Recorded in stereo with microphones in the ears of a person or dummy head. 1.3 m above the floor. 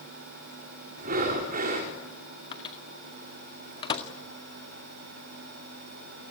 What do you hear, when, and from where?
1.0 s breathing: 40° right (ahead or behind), 4.5 m
2.5 s a microwave: 30° left (ahead or behind), 2.0 m